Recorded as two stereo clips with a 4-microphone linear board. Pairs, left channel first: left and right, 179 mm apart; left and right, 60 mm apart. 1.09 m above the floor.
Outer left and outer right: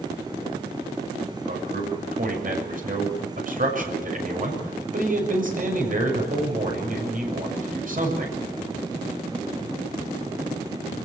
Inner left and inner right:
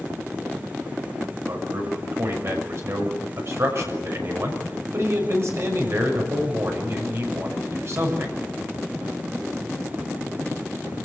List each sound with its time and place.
1.5 s a man speaking: 50° right (ahead or behind), 6.5 m